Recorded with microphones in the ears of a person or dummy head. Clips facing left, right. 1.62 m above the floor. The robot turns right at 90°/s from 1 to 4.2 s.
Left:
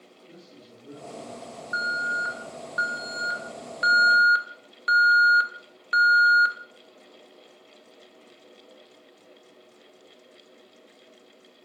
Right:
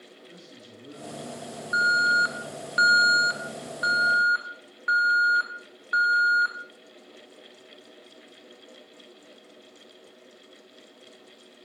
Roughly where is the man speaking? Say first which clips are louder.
Left 2 dB; behind right.